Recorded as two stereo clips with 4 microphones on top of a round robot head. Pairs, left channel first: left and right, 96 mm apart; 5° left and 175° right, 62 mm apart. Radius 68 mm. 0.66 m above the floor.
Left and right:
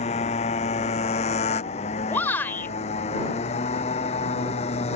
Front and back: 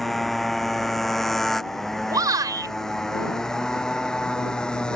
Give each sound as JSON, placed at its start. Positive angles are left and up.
{"t": 0.0, "sound": "a motorcycle", "azimuth_deg": 90}
{"t": 2.1, "sound": "a shout", "azimuth_deg": 165}